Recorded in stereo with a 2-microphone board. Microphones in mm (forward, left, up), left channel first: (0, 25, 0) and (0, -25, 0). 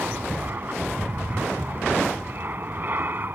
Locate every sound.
0.0 s an aircraft: 40° right (ahead or behind)